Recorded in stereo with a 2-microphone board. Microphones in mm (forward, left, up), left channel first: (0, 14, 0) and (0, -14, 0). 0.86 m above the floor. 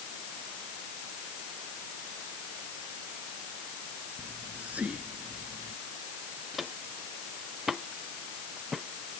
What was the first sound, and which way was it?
Whispering, 65° right (ahead or behind).